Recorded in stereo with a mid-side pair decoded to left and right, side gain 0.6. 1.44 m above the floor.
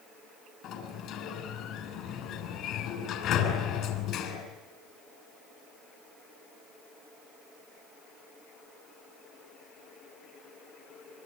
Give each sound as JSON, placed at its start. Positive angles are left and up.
{"t": 0.6, "sound": "a sliding door", "azimuth_deg": 60, "distance_m": 6.0}